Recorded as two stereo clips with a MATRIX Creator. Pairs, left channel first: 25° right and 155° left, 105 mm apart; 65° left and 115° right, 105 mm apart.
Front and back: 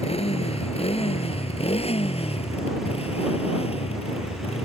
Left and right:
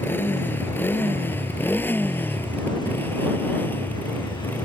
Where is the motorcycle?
Straight ahead; by 4.7 s 5° right.